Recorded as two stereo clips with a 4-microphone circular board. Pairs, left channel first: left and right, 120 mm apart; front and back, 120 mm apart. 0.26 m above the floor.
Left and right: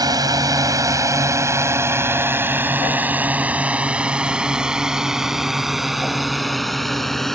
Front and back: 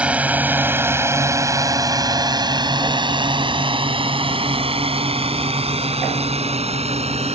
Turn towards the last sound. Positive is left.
turn(degrees=175)